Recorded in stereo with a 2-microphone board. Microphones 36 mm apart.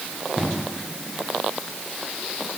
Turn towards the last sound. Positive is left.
No sound to turn to.